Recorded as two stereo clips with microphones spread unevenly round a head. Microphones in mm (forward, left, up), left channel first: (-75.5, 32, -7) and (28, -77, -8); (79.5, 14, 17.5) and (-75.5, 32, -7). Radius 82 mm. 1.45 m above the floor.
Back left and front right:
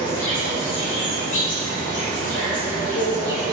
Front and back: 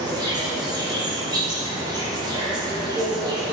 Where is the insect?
110° left, 6.5 m.